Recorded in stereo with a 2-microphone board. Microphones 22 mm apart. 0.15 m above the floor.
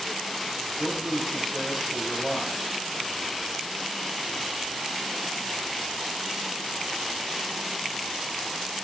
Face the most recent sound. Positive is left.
turn(degrees=15)  # may be behind; listen again after turning